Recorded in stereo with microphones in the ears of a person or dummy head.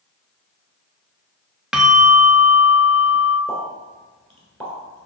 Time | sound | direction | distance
1.7 | a bell | 5° right (ahead or behind) | 0.5 m
3.5 | a pop | 5° left (ahead or behind) | 1.3 m